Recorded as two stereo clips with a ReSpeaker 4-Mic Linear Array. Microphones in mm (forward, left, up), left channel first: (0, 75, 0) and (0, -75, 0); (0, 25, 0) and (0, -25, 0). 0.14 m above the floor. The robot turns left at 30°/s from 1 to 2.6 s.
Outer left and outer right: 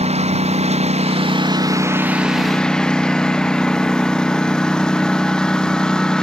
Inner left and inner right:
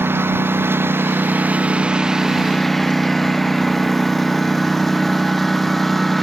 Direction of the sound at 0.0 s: 135° right.